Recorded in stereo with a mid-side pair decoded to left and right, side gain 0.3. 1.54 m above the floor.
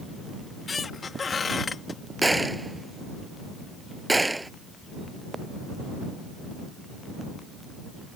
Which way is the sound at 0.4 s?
55° left.